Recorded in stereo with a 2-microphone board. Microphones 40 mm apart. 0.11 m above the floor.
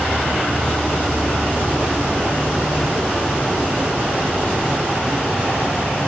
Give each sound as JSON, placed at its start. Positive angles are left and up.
{"t": 0.0, "sound": "an insect", "side_deg": 65, "distance_m": 2.5}